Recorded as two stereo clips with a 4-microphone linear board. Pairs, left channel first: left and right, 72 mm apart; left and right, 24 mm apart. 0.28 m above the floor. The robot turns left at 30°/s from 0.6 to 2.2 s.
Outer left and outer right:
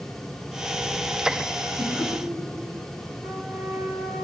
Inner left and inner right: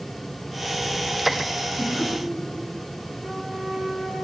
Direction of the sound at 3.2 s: 15° right (ahead or behind).